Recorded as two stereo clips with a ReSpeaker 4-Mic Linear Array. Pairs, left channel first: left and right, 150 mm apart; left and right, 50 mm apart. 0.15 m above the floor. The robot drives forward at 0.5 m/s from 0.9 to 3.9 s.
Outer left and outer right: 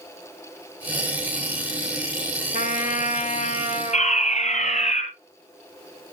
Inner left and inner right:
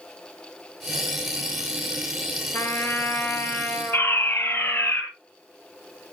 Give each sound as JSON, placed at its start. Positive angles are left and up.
{"t": 2.5, "sound": "a trumpet", "side_deg": 60, "distance_m": 1.4}
{"t": 3.9, "sound": "a fire alarm", "side_deg": 50, "distance_m": 5.0}